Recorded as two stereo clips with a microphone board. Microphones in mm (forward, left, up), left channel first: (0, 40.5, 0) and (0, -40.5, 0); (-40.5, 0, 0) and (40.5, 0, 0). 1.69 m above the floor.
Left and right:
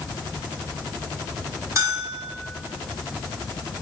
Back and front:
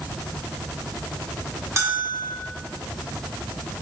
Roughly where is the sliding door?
No sliding door in this recording.